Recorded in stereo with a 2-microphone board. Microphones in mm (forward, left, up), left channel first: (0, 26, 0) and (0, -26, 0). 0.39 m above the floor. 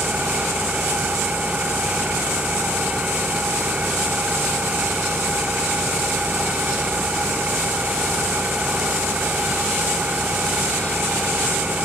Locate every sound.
0.0 s an engine running: 20° right (ahead or behind)